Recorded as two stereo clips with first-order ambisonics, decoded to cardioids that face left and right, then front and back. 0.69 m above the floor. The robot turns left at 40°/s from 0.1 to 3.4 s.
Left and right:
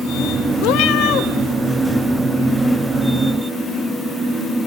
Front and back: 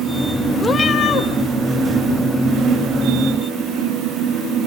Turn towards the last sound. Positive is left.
turn(degrees=-30)